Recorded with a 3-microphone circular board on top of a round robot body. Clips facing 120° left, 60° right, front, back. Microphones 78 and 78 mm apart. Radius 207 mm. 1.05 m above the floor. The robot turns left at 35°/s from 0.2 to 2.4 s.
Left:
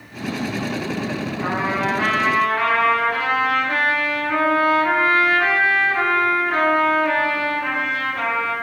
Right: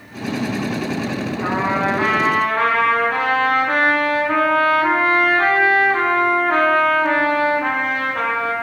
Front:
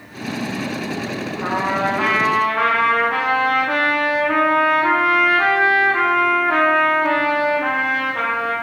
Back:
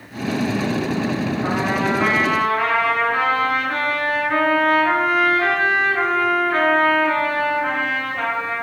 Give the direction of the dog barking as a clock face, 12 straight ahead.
No dog barking in this recording.